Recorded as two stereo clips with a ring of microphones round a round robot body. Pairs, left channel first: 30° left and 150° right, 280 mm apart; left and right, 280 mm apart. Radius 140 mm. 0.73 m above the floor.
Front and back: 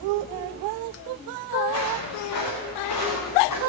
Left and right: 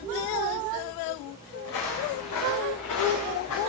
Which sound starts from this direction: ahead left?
Footsteps, at 1.6 s.